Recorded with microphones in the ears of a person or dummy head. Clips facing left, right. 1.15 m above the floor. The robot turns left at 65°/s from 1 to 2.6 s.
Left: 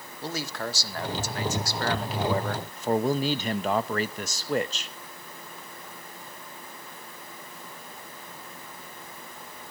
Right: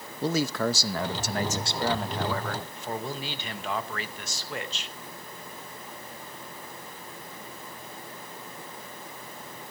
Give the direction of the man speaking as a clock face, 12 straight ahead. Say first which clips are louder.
Right 7 dB; 4 o'clock.